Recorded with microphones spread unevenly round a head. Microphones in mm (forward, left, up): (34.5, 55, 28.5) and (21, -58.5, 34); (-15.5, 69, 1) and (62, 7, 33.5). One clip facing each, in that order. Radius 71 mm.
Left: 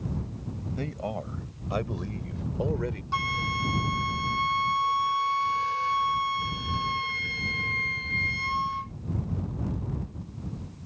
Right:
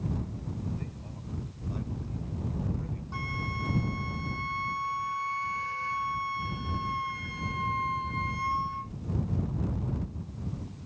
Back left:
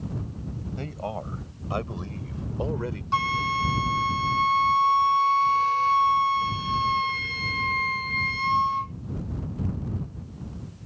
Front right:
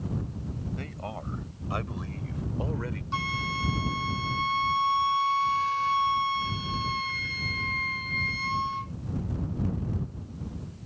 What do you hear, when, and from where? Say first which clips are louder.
0.8 s a man speaking: left 10 dB, back left 5 dB; 85° left; by 3.0 s 80° left
3.1 s a flute: left 6 dB, back left 8 dB; 110° left